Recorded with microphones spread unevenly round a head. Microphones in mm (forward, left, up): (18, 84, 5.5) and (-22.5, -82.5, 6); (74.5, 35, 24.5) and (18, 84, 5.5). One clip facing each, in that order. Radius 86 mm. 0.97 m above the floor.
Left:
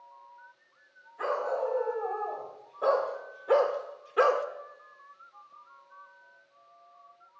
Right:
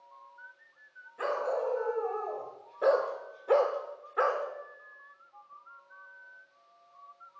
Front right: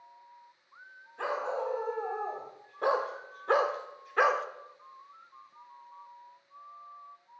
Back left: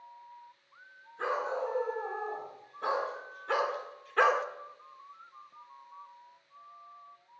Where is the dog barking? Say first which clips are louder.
Left 1 dB, even; 55° right, 2.5 m; by 4.5 s 45° left, 1.0 m.